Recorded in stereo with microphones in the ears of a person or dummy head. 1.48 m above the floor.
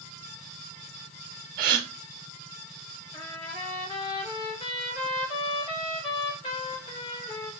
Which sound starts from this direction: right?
A gasp, at 1.6 s.